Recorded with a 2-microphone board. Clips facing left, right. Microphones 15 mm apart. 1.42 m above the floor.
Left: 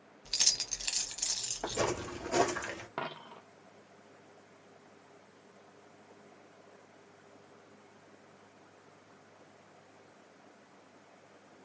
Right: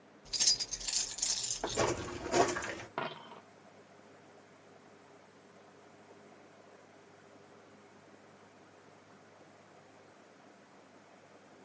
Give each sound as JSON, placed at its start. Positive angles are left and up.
{"t": 0.2, "sound": "keys jangling", "side_deg": 50, "distance_m": 1.0}
{"t": 1.6, "sound": "footsteps", "side_deg": 5, "distance_m": 1.6}
{"t": 3.0, "sound": "a dropped coin", "side_deg": 10, "distance_m": 0.7}